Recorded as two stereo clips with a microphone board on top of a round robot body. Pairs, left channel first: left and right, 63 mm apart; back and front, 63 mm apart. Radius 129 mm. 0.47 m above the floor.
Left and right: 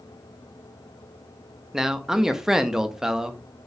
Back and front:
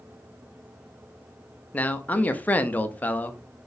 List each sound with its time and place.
1.7 s a man speaking: 160° right, 0.7 m